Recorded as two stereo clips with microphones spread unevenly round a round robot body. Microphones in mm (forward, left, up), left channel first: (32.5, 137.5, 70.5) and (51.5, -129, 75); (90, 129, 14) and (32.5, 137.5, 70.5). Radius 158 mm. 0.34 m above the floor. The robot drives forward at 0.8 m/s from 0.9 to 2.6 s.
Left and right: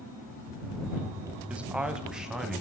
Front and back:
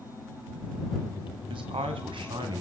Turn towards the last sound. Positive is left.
turn(degrees=-175)